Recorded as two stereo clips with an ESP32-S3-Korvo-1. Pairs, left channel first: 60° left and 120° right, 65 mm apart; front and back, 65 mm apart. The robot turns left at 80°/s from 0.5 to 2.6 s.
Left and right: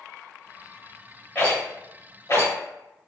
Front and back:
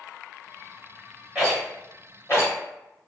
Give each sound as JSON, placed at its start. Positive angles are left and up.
{"t": 1.4, "sound": "a rattle", "azimuth_deg": 110, "distance_m": 1.4}